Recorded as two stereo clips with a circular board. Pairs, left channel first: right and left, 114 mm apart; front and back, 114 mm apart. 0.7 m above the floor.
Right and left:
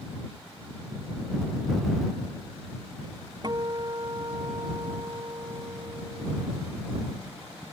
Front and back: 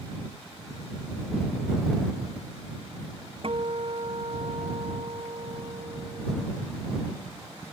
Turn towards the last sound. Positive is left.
turn(degrees=140)